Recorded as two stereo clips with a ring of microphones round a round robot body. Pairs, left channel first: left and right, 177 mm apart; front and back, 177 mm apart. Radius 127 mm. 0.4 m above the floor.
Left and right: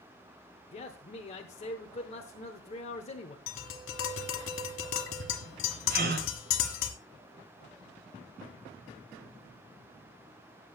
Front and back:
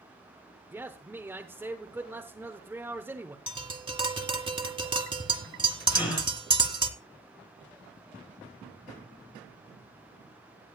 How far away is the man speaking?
About 0.9 m.